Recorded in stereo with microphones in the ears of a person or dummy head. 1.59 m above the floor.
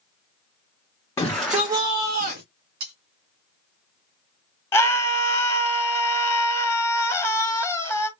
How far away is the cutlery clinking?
About 2.5 m.